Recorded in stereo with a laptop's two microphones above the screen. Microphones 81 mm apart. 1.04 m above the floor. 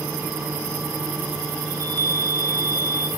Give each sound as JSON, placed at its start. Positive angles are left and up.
{"t": 0.0, "sound": "a fan", "side_deg": -20, "distance_m": 7.5}
{"t": 1.7, "sound": "a chime", "side_deg": -45, "distance_m": 1.2}